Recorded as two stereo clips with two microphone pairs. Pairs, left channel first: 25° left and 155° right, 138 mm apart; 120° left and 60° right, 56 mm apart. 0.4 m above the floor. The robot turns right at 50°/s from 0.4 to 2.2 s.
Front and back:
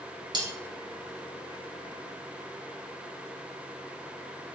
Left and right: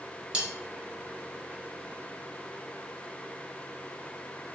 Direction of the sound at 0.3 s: 120° right.